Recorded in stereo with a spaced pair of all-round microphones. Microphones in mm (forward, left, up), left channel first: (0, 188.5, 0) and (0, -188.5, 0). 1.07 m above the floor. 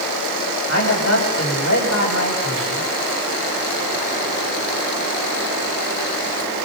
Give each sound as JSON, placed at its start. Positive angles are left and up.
{"t": 0.7, "sound": "a man speaking", "side_deg": 45, "distance_m": 7.5}